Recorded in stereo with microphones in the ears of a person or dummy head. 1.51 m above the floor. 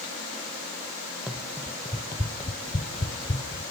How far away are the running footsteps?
About 2 m.